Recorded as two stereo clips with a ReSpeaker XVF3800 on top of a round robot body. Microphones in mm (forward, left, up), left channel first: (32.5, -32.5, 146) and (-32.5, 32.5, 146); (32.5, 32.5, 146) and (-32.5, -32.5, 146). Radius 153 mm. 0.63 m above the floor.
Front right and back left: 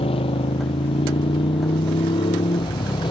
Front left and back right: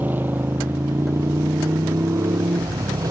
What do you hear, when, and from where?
0.0 s a motorcycle: 60° right; by 3.1 s 80° right